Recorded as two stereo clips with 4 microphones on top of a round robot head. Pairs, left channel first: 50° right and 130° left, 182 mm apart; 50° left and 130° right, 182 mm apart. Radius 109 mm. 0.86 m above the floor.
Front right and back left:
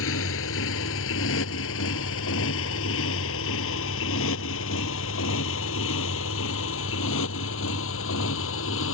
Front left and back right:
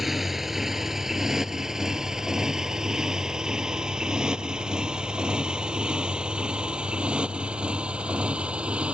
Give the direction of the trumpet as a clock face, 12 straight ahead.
No trumpet in this recording.